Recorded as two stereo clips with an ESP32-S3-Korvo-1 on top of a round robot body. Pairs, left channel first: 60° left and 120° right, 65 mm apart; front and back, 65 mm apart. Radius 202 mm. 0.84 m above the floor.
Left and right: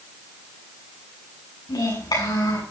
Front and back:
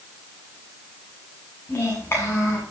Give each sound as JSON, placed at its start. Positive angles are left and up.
{"t": 1.7, "sound": "a child speaking", "azimuth_deg": 55, "distance_m": 8.5}